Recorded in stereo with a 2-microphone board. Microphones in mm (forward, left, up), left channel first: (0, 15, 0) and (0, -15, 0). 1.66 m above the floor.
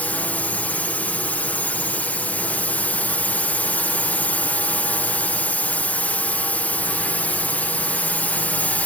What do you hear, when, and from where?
0.0 s a drone: 60° left (ahead or behind)